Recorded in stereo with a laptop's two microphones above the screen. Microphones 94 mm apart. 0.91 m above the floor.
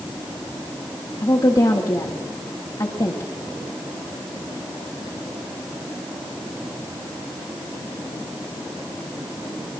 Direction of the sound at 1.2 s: 45° left (ahead or behind).